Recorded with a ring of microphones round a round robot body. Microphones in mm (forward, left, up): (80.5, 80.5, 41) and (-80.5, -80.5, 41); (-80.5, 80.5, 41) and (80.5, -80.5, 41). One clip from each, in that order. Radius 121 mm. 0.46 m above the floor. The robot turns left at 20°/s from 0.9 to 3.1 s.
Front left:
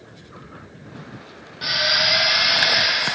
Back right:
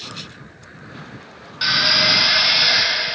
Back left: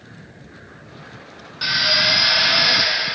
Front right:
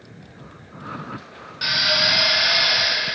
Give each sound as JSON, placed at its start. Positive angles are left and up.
{"t": 1.6, "sound": "a drill", "azimuth_deg": -135, "distance_m": 3.5}